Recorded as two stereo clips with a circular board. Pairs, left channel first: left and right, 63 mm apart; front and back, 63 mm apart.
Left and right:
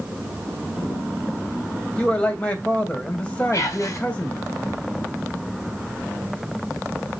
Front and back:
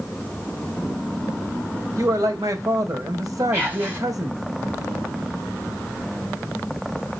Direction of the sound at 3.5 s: 120° left.